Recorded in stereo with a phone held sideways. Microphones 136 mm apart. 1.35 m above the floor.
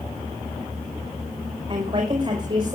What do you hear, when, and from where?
1.7 s a woman speaking: 45° right (ahead or behind), 6 m